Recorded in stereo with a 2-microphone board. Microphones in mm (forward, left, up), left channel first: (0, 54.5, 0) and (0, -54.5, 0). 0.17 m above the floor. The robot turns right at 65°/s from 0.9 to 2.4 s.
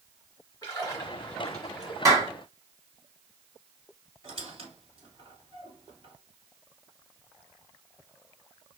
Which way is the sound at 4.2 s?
50° right (ahead or behind).